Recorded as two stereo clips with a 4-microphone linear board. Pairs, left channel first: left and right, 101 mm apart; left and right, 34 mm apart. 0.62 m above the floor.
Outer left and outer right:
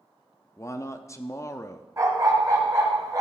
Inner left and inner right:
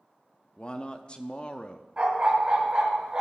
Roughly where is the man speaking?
Left.